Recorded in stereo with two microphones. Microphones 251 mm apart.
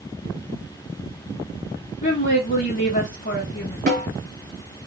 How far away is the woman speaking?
About 1.5 m.